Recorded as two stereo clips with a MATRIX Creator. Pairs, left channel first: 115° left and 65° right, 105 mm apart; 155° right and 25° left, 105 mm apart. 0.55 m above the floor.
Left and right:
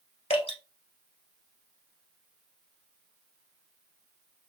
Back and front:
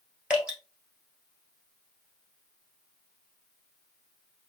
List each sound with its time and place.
0.3 s dripping: 105° left, 1.7 m